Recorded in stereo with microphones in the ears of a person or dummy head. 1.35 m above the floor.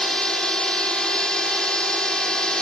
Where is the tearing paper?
No tearing paper in this recording.